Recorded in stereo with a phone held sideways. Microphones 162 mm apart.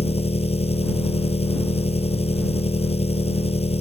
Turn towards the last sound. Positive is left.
turn(degrees=40)  # may be behind; listen again after turning